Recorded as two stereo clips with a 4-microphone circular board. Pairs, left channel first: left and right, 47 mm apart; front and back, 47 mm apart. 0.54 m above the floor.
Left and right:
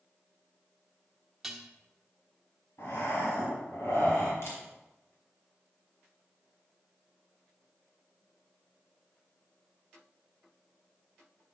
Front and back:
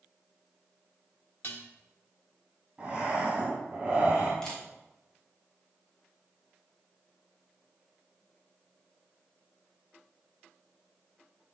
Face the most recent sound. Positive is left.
turn(degrees=80)